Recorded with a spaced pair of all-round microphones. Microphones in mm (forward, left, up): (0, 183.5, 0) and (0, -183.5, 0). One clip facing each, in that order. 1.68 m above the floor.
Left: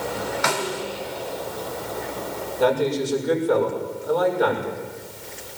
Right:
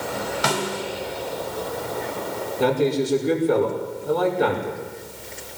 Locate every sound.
0.4 s a snare drum: 45° right (ahead or behind), 3.5 m
2.6 s a man speaking: 35° right (ahead or behind), 6 m